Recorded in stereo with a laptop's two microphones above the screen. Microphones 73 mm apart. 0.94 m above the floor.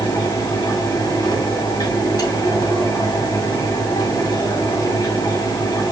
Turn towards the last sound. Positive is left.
turn(degrees=60)  # may be behind; listen again after turning